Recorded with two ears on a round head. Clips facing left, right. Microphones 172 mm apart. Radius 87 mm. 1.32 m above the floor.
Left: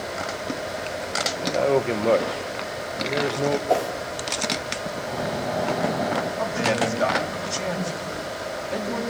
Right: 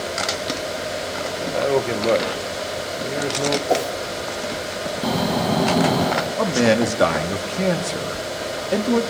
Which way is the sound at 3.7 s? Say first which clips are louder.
Right 3 dB; 15° right (ahead or behind).